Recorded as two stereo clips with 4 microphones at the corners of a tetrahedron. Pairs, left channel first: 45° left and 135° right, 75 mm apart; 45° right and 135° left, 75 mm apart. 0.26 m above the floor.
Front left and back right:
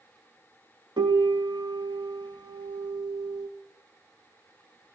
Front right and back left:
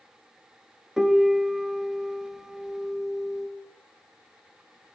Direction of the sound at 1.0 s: 140° right.